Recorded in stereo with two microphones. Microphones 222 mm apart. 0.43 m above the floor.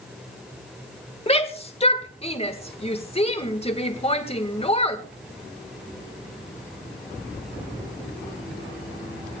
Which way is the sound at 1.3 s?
30° left (ahead or behind).